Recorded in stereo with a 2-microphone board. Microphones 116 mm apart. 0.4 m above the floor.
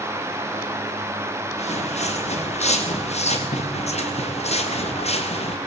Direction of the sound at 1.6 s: 75° left (ahead or behind).